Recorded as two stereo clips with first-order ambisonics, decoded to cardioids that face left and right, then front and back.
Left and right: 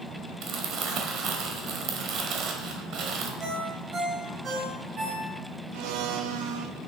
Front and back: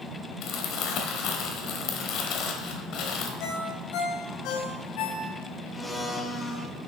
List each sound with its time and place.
0.4 s crumpling: 40° right, 1.3 m
3.4 s a ringtone: 25° right, 1.9 m
5.7 s a blender: 80° right, 0.9 m